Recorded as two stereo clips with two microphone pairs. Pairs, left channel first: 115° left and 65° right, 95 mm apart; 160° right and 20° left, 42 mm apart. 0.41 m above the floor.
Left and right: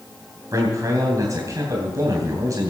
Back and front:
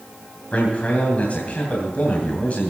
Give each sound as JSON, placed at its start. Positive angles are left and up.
{"t": 0.5, "sound": "a man speaking", "azimuth_deg": -110, "distance_m": 3.0}